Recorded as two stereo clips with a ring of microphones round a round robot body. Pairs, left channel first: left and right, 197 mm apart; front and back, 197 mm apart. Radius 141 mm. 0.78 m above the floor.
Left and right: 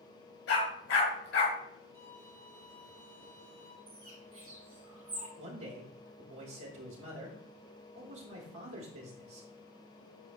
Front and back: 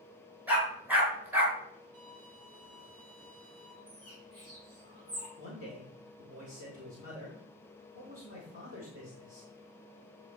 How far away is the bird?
About 5 m.